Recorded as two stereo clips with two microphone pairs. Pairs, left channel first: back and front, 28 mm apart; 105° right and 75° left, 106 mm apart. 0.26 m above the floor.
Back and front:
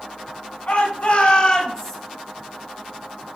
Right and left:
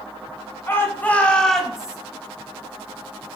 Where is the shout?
170° right, 2.5 m; by 2.0 s 130° left, 1.5 m.